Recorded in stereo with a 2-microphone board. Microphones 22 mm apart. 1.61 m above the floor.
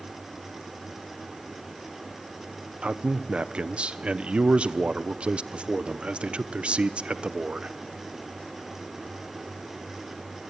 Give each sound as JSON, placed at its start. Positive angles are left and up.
{"t": 2.8, "sound": "a man speaking", "side_deg": -55, "distance_m": 1.0}